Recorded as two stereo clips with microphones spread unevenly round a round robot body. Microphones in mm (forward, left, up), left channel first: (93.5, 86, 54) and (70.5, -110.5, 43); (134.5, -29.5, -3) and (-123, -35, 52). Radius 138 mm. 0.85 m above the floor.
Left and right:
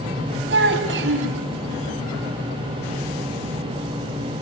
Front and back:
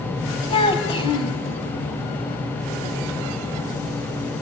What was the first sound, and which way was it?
A child speaking, 70° right.